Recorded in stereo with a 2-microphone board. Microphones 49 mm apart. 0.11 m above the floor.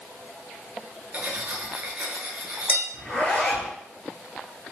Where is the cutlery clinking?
30° right (ahead or behind), 0.9 m.